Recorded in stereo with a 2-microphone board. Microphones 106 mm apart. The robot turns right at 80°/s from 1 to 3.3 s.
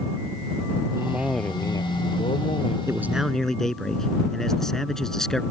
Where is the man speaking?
30° right; by 5.4 s 5° left.